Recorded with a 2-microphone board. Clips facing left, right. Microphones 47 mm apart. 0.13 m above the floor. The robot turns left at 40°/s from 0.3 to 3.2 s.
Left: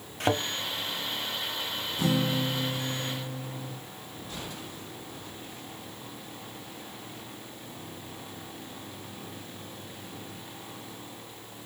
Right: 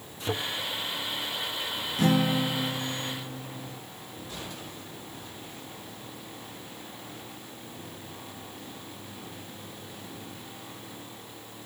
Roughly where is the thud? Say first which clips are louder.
Left 5 dB; left.